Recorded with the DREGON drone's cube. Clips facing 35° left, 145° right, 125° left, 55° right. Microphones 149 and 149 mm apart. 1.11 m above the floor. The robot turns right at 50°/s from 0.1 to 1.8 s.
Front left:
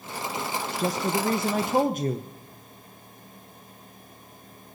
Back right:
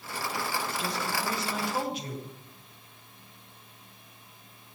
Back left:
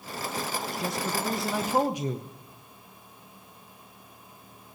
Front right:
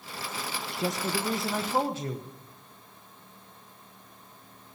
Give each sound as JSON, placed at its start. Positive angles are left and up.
{"t": 0.8, "sound": "a man speaking", "azimuth_deg": 0, "distance_m": 0.7}